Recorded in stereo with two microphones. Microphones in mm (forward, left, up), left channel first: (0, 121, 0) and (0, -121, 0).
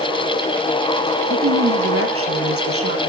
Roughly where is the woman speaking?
Right.